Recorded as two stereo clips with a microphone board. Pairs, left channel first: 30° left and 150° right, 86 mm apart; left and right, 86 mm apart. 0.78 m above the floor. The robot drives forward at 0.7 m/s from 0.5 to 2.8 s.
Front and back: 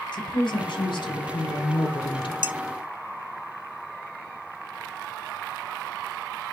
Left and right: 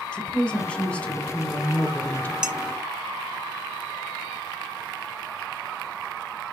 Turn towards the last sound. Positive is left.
turn(degrees=-170)